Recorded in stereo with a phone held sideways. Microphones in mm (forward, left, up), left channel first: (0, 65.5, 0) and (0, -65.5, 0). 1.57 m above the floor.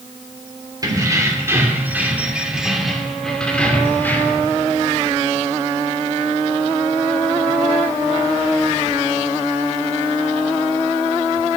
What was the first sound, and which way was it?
Keys jangling, 30° right (ahead or behind).